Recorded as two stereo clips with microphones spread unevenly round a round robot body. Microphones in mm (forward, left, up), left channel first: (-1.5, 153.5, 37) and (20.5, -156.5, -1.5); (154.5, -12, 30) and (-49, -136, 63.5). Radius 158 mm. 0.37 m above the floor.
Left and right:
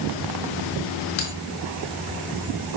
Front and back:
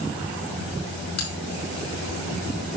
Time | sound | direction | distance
1.2 | a bell | 45° left | 4.5 m